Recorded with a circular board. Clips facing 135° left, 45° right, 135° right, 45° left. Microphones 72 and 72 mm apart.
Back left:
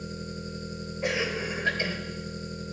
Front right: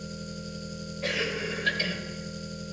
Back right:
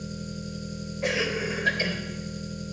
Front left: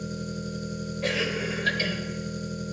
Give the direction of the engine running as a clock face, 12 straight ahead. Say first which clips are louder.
Back left 1 dB, front left 3 dB; 9 o'clock.